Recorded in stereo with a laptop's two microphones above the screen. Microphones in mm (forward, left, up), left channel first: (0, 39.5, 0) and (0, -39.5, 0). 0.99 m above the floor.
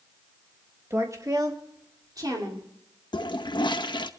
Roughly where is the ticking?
No ticking in this recording.